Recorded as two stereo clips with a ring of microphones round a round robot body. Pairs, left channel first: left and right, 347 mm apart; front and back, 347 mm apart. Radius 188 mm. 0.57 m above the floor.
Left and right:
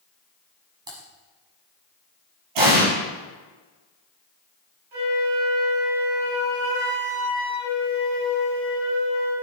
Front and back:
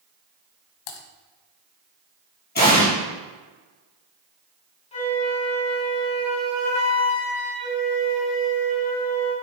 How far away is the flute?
About 4.5 m.